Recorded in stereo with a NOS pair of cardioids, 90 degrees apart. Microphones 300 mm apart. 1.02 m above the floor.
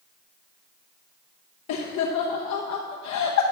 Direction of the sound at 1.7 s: 70° left.